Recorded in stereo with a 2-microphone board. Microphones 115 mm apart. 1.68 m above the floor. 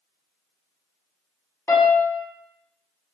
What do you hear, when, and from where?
1.7 s a piano: 25° left (ahead or behind), 1.0 m